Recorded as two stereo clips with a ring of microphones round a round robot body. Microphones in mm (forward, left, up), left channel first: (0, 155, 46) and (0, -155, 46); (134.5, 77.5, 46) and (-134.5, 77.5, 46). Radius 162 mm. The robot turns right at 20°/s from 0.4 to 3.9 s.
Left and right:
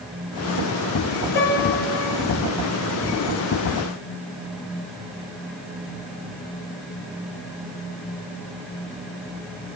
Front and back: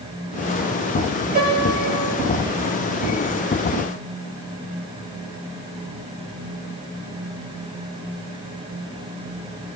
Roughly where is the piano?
Behind left.